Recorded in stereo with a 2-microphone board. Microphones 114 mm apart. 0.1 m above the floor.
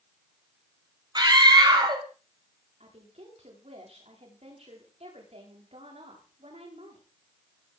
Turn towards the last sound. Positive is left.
turn(degrees=-70)  # may be behind; listen again after turning